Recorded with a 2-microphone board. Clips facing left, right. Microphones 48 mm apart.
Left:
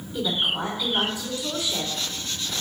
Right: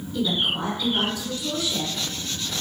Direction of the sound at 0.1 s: 20° left (ahead or behind).